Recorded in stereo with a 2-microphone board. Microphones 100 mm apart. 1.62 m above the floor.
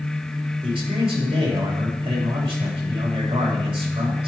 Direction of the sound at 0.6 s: 65° right (ahead or behind).